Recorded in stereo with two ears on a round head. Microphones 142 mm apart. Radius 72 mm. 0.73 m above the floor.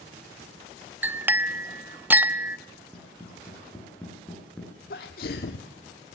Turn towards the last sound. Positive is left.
turn(degrees=60)  # may be behind; listen again after turning